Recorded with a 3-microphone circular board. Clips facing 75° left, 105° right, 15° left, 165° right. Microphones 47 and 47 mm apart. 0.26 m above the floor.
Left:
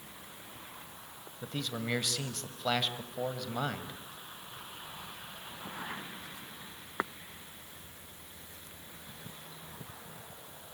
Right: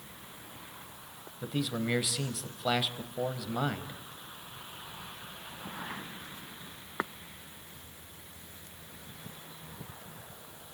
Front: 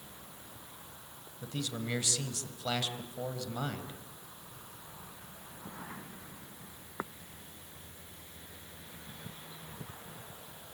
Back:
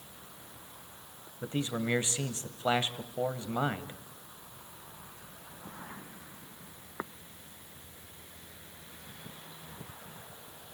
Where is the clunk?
No clunk in this recording.